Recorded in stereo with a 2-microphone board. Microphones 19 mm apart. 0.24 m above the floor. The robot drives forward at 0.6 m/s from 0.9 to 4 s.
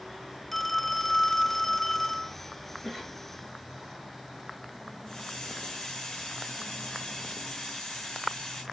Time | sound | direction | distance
0.5 | a phone ringing | 15° left (ahead or behind) | 0.8 m
2.8 | a cough | 10° right (ahead or behind) | 3 m
5.1 | a hiss | 20° left (ahead or behind) | 6.5 m